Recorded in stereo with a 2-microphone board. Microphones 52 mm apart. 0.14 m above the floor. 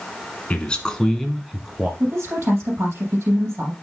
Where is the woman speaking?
55° right (ahead or behind), 4 m.